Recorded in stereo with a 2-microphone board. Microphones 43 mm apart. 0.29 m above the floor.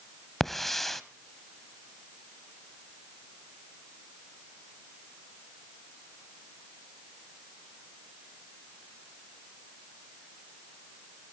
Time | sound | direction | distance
0.4 | a hiss | 5° left (ahead or behind) | 0.7 m